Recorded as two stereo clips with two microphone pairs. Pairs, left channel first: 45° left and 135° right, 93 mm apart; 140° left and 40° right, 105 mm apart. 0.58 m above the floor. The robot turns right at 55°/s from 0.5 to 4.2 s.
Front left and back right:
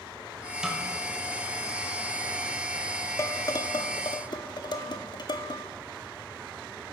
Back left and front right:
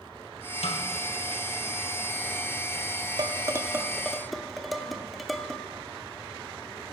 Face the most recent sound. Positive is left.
turn(degrees=55)